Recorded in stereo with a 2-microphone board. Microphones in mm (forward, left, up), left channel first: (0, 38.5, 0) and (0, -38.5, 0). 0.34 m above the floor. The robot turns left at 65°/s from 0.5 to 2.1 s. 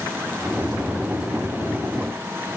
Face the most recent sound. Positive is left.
No sound to turn to.